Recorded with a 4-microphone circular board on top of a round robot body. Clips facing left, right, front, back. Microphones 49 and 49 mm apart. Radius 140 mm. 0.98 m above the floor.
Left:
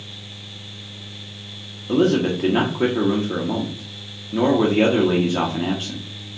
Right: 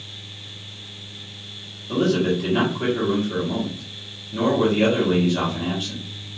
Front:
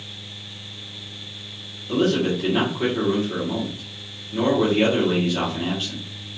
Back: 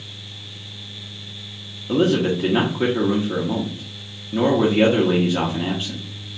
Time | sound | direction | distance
1.9 | a man speaking | 115° left | 1.3 m